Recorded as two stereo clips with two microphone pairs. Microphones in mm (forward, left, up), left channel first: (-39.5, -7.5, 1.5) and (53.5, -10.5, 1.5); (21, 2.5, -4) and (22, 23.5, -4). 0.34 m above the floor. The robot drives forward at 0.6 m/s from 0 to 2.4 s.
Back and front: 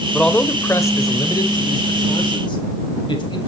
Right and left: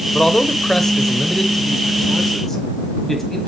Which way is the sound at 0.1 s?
105° right.